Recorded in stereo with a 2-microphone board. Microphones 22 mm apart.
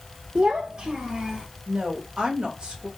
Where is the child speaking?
50° right (ahead or behind), 0.8 m; by 1.5 s 35° right (ahead or behind), 1.7 m.